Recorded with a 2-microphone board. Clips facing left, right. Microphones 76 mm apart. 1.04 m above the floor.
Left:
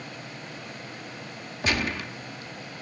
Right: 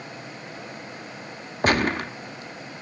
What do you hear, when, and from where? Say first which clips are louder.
1.6 s a gunshot: right 6 dB; 45° right (ahead or behind), 0.8 m